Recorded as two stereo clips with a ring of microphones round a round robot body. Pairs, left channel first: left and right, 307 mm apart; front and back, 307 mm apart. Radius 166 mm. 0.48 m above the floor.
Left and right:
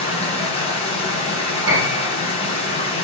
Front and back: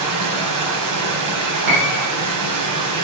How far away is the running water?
About 3.5 m.